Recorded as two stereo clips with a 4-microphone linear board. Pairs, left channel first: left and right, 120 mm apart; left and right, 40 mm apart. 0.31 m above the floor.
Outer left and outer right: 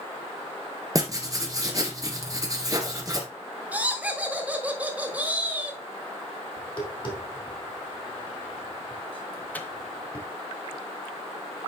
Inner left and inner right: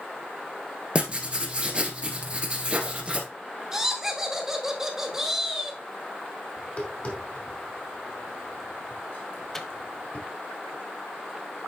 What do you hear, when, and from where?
0.9 s writing: 30° right (ahead or behind), 1.8 m
3.7 s laughter: 10° right (ahead or behind), 1.5 m
6.6 s tapping: 40° left (ahead or behind), 2 m
9.5 s a microwave: 10° left (ahead or behind), 0.8 m